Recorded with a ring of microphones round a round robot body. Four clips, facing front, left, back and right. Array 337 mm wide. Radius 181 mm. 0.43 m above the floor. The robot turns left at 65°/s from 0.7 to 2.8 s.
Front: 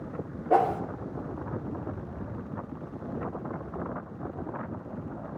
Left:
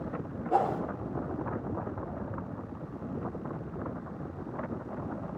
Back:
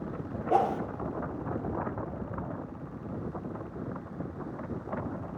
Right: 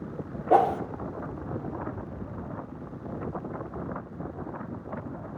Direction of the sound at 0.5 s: 70° right.